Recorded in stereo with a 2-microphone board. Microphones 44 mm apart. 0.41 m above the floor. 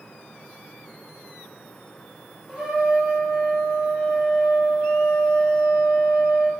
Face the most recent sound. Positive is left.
turn(degrees=0)  # may be behind; listen again after turning